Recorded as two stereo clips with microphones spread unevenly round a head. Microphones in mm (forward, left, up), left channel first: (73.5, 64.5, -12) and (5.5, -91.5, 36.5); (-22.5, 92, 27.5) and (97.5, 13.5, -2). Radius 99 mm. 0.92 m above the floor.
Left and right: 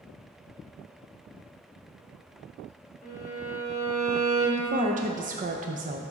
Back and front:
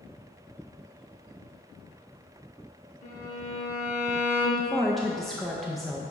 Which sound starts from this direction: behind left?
A violin, at 3.0 s.